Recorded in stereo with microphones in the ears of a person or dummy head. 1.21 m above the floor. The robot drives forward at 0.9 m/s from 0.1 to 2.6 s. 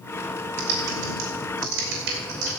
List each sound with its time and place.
0.6 s typing on a keyboard: 80° right, 3 m; by 2.5 s 65° right (ahead or behind), 3.5 m